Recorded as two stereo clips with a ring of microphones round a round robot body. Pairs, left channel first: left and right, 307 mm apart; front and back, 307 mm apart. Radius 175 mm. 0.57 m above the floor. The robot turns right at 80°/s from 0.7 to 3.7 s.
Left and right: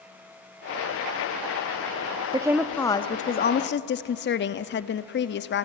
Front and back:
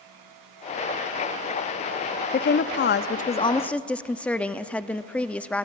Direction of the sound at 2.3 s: 25° right.